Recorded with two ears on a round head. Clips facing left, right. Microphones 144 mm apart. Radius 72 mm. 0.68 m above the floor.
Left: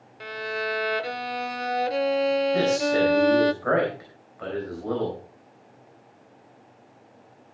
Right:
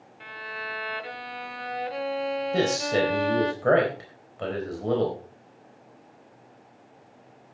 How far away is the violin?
About 0.5 m.